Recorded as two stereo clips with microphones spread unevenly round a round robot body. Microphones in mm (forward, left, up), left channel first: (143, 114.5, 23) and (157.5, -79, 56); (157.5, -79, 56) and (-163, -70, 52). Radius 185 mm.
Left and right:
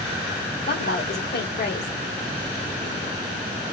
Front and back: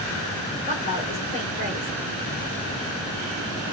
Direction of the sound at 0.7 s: 70° left.